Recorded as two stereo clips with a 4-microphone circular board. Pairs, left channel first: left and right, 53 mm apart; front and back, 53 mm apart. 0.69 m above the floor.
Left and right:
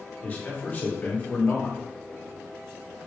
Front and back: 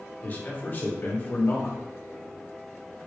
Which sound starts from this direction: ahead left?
A man speaking, at 0.2 s.